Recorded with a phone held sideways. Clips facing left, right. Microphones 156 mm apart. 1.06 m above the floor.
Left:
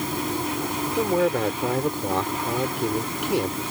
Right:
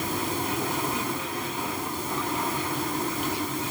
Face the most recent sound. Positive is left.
turn(degrees=80)